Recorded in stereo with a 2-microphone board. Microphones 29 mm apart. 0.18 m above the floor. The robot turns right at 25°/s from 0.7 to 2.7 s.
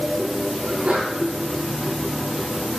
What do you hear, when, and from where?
0.6 s a sneeze: 60° right (ahead or behind), 6 m; by 1.1 s 50° right (ahead or behind), 6 m